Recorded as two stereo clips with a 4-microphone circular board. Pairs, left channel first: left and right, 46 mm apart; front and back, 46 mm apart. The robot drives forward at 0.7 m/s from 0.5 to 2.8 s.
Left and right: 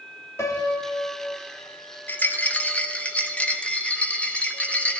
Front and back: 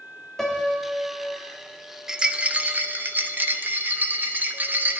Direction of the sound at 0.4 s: 85° left.